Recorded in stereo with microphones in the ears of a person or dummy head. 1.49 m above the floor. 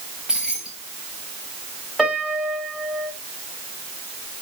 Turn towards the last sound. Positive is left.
turn(degrees=5)  # may be behind; listen again after turning